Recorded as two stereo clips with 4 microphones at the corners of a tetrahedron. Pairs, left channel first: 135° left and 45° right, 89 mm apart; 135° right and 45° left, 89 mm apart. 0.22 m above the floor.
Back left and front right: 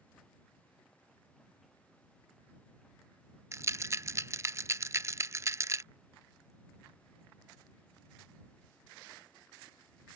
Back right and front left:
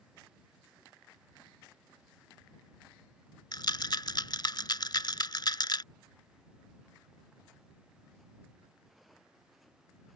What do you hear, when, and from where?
3.5 s a rattle: 100° right